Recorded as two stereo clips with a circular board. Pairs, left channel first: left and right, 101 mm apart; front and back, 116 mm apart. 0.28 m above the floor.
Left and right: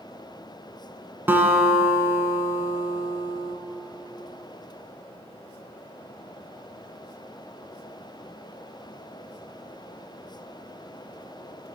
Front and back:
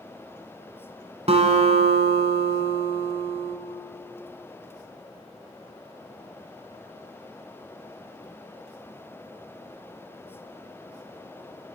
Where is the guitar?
160° right, 1.3 m.